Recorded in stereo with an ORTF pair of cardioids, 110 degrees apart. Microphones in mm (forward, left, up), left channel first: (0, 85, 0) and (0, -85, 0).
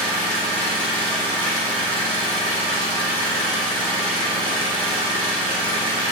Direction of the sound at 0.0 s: 30° right.